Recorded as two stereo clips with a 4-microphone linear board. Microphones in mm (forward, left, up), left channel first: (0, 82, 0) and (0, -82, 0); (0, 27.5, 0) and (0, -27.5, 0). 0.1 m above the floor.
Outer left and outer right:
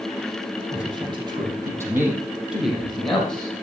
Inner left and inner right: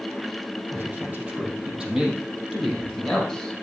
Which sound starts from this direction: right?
A man speaking, at 0.7 s.